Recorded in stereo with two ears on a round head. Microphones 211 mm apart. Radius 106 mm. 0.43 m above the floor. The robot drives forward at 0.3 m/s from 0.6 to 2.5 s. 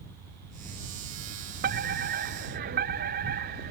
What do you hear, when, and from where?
1.6 s a fire alarm: 40° right (ahead or behind)